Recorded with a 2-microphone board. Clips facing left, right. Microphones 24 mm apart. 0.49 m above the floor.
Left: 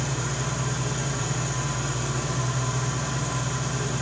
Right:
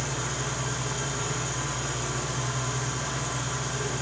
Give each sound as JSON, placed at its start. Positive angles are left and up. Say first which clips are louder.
{"t": 0.0, "sound": "an engine running", "louder": "left 2 dB", "side_deg": 20, "distance_m": 2.5}